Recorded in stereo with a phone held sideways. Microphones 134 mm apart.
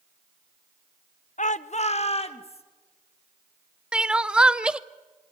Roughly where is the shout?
Left.